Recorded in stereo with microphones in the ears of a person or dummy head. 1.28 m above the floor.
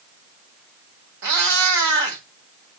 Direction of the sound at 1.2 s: 60° right (ahead or behind).